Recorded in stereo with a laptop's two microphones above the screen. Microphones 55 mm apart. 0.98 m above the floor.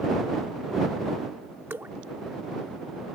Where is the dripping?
40° right (ahead or behind).